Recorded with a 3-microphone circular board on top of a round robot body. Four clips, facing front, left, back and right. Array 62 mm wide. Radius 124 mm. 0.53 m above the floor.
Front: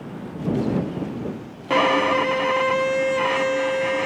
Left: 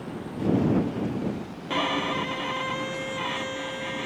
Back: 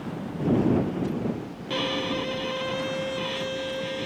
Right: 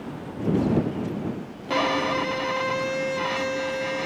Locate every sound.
1.7 s a violin: 15° right